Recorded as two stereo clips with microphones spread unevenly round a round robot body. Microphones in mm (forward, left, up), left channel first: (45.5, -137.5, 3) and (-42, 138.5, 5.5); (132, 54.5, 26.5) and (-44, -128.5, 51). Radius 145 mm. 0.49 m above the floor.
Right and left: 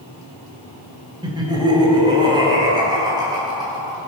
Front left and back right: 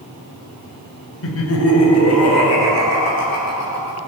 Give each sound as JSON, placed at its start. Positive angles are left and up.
{"t": 1.2, "sound": "laughter", "azimuth_deg": 35, "distance_m": 1.9}